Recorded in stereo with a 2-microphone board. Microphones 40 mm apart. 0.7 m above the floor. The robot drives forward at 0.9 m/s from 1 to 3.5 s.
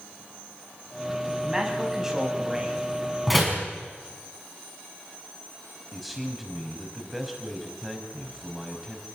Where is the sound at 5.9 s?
5° right (ahead or behind), 5 m.